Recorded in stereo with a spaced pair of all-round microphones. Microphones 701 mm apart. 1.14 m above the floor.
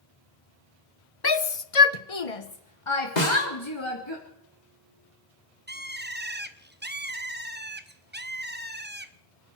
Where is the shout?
35° left (ahead or behind), 0.9 m.